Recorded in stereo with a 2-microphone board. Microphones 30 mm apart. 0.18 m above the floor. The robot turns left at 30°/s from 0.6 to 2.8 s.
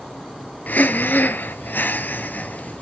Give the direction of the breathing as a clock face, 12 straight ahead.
8 o'clock.